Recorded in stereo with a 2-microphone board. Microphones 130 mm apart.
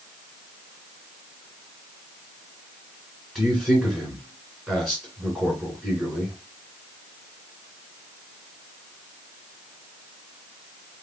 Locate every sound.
3.4 s a man speaking: 10° right (ahead or behind), 2 m